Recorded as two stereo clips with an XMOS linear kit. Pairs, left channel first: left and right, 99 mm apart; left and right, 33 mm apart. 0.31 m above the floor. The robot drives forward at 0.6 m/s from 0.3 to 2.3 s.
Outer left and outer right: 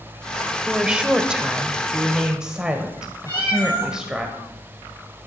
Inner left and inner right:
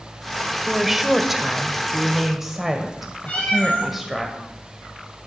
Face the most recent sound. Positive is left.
turn(degrees=35)  # may be behind; listen again after turning